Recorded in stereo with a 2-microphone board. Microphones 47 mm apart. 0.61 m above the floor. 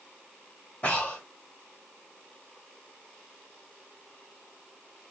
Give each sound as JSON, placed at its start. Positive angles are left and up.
{"t": 0.8, "sound": "breathing", "side_deg": 25, "distance_m": 1.7}